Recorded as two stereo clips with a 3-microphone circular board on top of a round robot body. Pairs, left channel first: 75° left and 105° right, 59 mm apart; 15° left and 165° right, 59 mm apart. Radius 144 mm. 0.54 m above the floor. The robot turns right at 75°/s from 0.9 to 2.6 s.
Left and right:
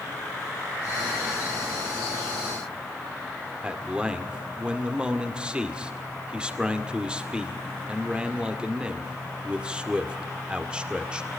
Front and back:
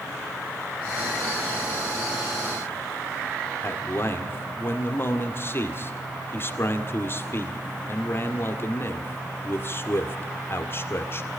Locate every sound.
3.6 s a man speaking: 30° right, 2 m